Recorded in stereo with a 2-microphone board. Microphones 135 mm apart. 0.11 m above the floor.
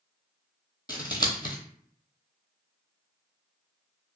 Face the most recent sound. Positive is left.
turn(degrees=30)  # may be behind; listen again after turning